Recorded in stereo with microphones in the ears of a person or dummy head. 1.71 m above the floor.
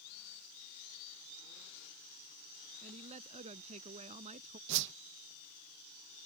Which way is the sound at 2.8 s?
35° right (ahead or behind).